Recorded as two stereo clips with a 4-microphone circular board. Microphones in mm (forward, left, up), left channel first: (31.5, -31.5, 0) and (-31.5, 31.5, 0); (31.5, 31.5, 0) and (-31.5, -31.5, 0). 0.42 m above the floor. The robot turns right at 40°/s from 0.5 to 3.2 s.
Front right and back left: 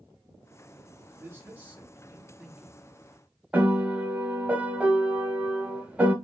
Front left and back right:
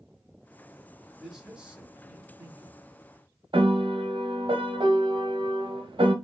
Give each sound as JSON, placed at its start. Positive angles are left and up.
{"t": 1.2, "sound": "a man speaking", "azimuth_deg": 145, "distance_m": 0.9}
{"t": 3.5, "sound": "a piano", "azimuth_deg": -150, "distance_m": 0.7}